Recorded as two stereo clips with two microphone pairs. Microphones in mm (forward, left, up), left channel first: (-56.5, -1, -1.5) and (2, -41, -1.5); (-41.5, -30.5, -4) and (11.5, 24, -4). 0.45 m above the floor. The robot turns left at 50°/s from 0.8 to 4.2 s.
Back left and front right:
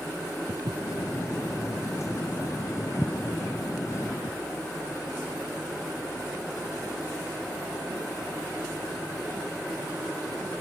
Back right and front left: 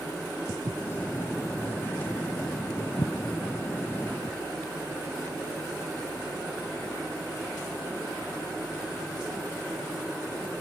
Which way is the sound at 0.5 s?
5° right.